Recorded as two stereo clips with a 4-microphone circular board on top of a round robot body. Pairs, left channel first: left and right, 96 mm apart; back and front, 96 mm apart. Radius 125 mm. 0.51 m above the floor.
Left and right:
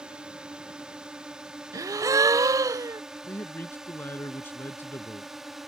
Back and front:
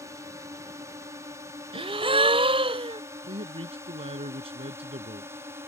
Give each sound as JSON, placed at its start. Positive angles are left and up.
{"t": 0.0, "sound": "a drone", "azimuth_deg": -15}
{"t": 1.7, "sound": "a gasp", "azimuth_deg": -30}
{"t": 3.3, "sound": "a man speaking", "azimuth_deg": 20}